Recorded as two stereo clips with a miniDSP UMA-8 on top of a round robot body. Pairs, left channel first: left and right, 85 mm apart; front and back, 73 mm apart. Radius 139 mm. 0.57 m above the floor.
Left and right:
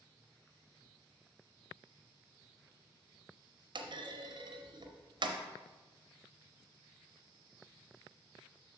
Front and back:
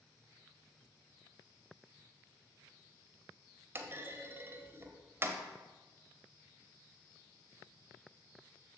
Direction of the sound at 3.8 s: 120° right.